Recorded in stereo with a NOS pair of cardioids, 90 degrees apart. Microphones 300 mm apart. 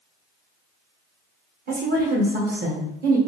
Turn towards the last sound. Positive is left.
turn(degrees=-35)